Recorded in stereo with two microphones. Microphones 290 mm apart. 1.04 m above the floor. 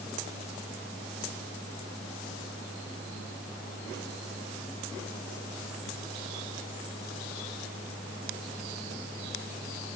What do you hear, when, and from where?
Only background noise.